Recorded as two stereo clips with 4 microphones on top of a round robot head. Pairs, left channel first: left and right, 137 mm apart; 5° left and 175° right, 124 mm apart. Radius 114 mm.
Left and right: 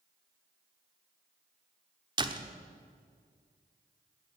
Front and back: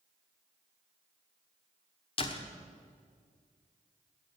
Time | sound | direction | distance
2.2 | a door slam | 35° right | 1.3 m